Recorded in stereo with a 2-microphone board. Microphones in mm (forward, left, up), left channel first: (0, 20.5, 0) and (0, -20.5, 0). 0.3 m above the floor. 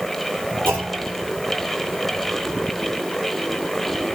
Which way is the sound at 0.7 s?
65° right (ahead or behind).